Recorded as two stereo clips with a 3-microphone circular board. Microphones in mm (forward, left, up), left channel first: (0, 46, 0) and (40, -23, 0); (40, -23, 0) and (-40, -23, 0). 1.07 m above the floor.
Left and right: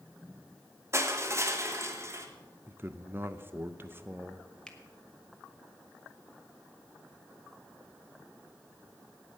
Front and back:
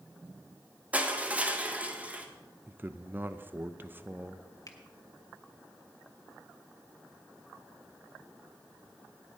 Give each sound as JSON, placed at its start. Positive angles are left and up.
{"t": 0.9, "sound": "crushing", "azimuth_deg": -110, "distance_m": 1.3}
{"t": 2.7, "sound": "a man speaking", "azimuth_deg": -115, "distance_m": 0.6}
{"t": 4.7, "sound": "a finger snap", "azimuth_deg": 40, "distance_m": 1.5}